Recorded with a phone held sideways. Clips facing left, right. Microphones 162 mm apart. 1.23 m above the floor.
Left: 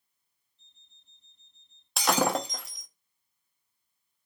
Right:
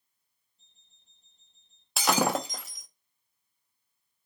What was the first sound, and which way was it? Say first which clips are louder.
An alarm clock: left 2 dB; 40° right (ahead or behind).